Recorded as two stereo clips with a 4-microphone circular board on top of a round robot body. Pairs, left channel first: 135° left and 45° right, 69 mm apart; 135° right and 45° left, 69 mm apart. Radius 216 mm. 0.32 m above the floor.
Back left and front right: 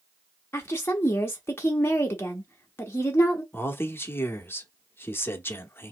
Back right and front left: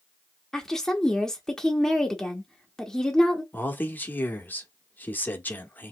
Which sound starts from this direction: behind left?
A woman speaking, at 0.5 s.